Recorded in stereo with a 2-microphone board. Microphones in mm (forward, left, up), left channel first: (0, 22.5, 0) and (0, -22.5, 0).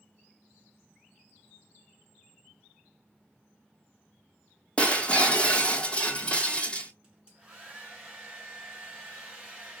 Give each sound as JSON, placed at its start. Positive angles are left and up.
{"t": 4.8, "sound": "breaking glass", "side_deg": 20, "distance_m": 1.1}
{"t": 7.0, "sound": "a hair dryer", "side_deg": -20, "distance_m": 2.0}